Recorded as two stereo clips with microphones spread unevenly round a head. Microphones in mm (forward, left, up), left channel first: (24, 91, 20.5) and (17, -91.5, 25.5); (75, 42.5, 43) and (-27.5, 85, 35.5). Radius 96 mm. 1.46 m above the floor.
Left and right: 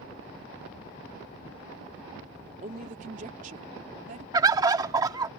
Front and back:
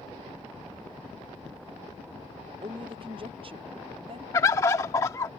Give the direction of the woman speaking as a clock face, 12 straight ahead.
5 o'clock.